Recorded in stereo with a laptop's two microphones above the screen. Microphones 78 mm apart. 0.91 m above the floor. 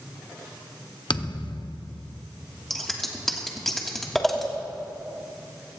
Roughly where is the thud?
Left.